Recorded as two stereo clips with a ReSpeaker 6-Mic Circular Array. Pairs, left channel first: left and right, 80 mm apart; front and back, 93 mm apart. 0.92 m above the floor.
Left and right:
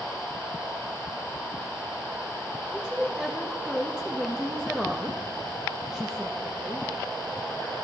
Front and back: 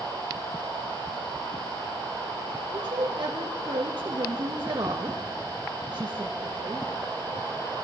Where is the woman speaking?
170° right, 1.2 m.